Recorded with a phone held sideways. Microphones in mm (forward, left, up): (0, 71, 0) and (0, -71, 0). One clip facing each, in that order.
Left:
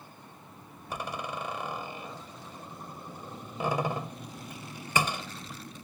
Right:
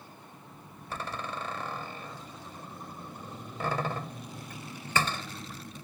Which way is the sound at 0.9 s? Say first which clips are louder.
Left 1 dB; 15° left (ahead or behind).